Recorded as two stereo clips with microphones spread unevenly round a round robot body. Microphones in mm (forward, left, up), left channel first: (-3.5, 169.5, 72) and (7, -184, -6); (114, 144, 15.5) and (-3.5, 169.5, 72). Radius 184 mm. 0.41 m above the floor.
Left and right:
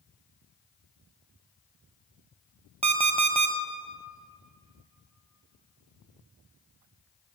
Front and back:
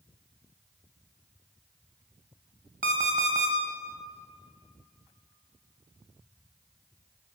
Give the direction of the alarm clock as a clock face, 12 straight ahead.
5 o'clock.